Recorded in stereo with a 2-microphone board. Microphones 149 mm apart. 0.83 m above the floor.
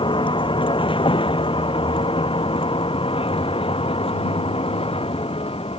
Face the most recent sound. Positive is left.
turn(degrees=40)  # may be behind; listen again after turning